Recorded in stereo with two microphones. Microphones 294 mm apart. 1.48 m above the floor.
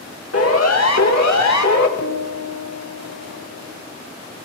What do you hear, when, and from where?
0.3 s a siren: 55° left (ahead or behind), 2 m; by 1.9 s 80° left, 2 m
2.0 s a piano: 65° left (ahead or behind), 2.5 m